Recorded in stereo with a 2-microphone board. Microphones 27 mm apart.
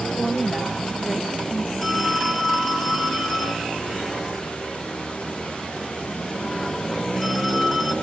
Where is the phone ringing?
15° left (ahead or behind), 2 m.